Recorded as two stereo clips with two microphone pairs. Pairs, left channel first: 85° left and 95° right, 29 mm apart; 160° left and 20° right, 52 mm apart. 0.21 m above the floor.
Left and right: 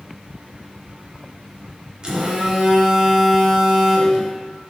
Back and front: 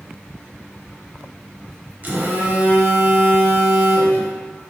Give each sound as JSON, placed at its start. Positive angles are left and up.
{"t": 2.0, "sound": "a phone buzzing", "azimuth_deg": -45, "distance_m": 0.6}